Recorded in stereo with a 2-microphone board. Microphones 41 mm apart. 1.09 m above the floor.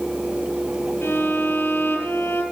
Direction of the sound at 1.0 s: 65° left (ahead or behind).